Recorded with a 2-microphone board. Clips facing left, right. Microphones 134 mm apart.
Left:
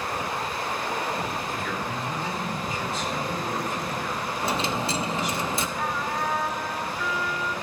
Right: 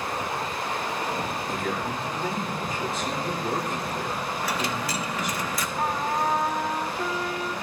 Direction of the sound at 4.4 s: 25° left (ahead or behind).